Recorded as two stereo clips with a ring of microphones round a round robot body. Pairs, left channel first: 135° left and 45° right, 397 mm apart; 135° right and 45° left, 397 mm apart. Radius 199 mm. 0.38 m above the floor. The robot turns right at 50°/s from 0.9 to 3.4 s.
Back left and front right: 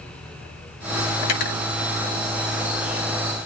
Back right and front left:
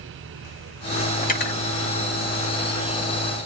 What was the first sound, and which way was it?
Cutlery clinking, 155° left.